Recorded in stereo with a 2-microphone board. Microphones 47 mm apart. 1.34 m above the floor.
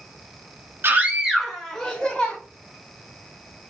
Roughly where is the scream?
Right.